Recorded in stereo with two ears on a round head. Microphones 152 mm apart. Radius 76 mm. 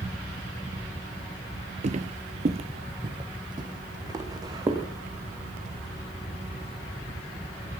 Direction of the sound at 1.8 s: 40° right (ahead or behind).